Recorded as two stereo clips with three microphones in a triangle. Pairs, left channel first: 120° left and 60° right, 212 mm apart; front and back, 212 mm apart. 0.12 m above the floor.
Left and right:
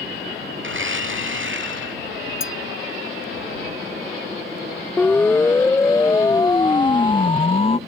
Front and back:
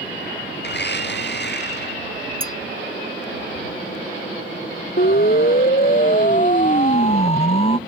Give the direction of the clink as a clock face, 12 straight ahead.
8 o'clock.